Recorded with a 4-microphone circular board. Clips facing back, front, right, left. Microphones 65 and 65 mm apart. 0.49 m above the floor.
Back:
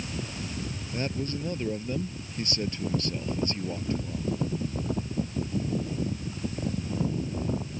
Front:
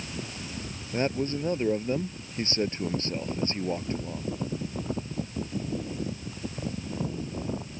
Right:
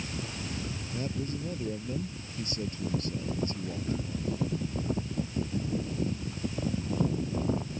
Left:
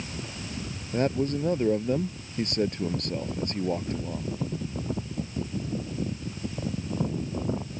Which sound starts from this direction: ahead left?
A man speaking, at 0.9 s.